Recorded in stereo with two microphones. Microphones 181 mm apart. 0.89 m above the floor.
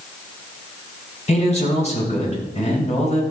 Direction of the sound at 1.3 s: 40° left (ahead or behind).